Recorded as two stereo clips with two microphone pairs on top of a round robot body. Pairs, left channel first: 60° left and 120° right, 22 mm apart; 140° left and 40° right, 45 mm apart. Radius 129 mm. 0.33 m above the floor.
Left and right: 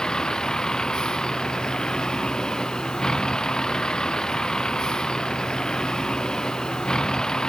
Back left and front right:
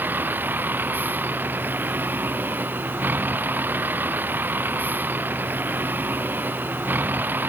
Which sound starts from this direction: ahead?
A vehicle, at 0.0 s.